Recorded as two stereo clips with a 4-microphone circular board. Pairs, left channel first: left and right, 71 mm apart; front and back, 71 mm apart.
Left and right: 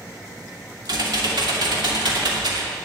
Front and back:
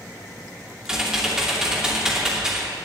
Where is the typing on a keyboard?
100° right, 2.5 m.